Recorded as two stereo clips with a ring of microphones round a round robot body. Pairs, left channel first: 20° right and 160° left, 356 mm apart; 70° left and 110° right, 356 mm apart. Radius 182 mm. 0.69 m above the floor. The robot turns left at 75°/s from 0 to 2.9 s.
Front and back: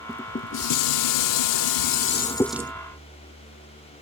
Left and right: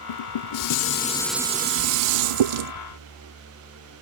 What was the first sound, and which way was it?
Dishes clattering, 70° left.